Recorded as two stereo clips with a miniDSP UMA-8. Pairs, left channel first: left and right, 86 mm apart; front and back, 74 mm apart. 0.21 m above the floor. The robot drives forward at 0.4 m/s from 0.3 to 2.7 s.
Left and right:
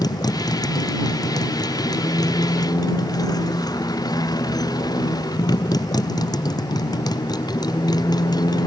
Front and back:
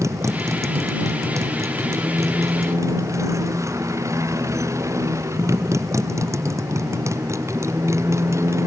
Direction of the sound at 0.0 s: 130° left.